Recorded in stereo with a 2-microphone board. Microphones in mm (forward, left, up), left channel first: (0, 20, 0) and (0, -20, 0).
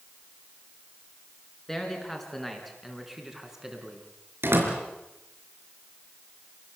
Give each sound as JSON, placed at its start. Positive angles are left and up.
{"t": 1.7, "sound": "a man speaking", "side_deg": 10, "distance_m": 5.5}
{"t": 4.4, "sound": "a door slam", "side_deg": -65, "distance_m": 4.5}